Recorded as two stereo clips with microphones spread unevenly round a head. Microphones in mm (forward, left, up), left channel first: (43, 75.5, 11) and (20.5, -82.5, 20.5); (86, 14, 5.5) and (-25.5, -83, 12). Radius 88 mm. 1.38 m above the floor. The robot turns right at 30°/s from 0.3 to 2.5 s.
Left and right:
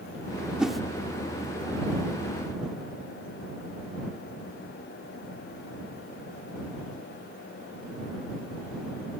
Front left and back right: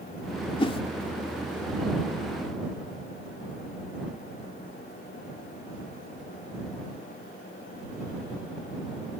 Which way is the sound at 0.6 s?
15° right.